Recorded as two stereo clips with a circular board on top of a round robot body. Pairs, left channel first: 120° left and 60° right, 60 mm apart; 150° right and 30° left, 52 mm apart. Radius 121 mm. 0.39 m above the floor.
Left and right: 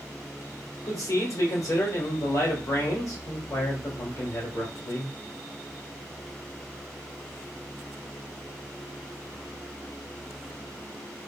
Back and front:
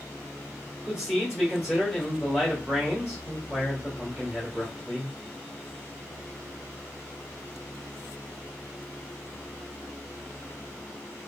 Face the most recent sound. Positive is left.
turn(degrees=105)